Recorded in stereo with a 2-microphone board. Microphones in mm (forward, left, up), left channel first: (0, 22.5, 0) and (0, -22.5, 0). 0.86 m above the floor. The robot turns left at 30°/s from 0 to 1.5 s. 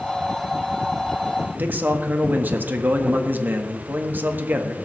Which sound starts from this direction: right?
A man speaking, at 1.6 s.